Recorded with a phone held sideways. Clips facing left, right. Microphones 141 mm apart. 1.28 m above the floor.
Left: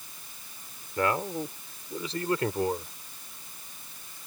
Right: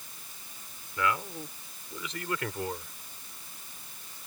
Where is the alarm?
I don't hear an alarm.